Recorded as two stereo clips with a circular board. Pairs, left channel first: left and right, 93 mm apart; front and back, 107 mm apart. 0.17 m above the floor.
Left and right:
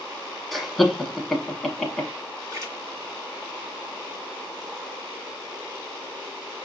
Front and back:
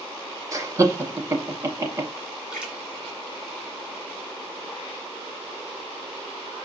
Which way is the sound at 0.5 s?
Straight behind.